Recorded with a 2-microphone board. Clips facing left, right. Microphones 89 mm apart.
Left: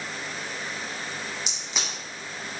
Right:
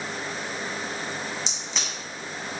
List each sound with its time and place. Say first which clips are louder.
1.5 s a crack: right 1 dB; 10° left (ahead or behind), 1.2 m